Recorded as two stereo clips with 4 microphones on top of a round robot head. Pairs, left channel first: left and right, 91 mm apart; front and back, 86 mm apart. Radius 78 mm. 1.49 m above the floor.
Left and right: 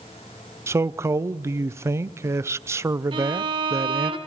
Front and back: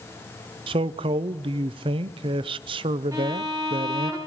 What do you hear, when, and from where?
0.7 s a man speaking: 150° right, 0.6 m
3.1 s a violin: 110° right, 2.0 m